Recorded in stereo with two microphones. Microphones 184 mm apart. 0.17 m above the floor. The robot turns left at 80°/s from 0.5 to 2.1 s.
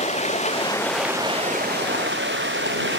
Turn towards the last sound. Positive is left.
turn(degrees=-90)